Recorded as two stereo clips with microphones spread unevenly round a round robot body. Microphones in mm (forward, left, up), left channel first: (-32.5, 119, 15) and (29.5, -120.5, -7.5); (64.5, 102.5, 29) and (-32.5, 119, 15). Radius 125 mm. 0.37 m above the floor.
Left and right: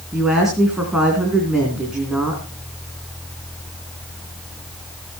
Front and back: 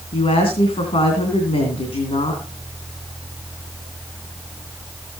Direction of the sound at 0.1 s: 10° left.